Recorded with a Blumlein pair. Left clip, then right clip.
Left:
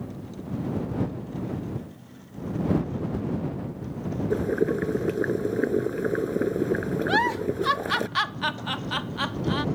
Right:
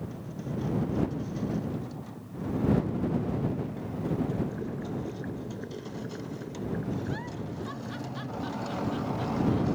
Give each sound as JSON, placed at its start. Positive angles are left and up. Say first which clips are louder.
{"t": 4.3, "sound": "boiling", "louder": "left 10 dB", "azimuth_deg": 55}
{"t": 7.1, "sound": "a giggle", "louder": "left 15 dB", "azimuth_deg": 50}